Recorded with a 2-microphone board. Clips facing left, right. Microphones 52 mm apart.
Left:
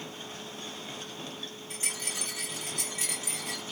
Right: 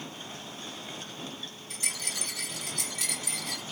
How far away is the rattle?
About 1.8 m.